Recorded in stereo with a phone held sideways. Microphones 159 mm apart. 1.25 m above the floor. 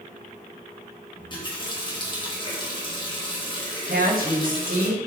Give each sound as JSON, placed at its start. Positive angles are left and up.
{"t": 1.1, "sound": "a running tap", "side_deg": 30, "distance_m": 1.1}
{"t": 3.9, "sound": "a woman speaking", "side_deg": -65, "distance_m": 1.1}